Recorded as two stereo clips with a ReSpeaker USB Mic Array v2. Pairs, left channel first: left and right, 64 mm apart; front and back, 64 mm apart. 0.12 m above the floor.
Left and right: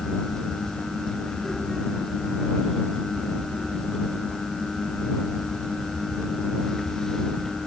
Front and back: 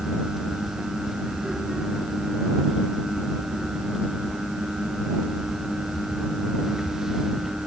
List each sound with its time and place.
Only background noise.